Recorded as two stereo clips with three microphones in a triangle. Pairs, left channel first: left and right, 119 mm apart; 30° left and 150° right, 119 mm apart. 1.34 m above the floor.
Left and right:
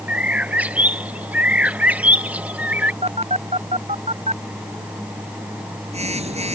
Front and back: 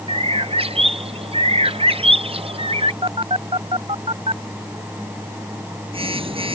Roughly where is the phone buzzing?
Behind right.